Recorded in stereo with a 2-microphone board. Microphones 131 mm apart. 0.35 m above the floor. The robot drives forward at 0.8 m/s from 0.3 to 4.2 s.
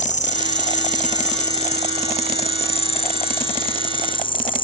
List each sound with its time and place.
0.0 s an insect: 65° left (ahead or behind); by 4.6 s 40° left (ahead or behind)